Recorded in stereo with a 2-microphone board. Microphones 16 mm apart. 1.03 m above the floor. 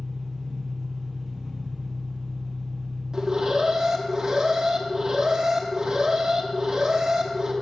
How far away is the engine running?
About 4.5 m.